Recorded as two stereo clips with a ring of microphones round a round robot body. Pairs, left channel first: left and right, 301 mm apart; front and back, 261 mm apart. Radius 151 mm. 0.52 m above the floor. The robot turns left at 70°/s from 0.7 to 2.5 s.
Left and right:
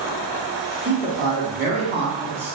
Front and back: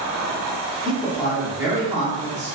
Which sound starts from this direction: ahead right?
A man speaking, at 0.8 s.